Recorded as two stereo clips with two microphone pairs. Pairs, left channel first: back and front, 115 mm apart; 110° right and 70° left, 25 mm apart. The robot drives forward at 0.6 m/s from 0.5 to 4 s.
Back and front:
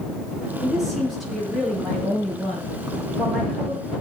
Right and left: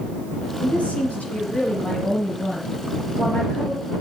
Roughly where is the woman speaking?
Right.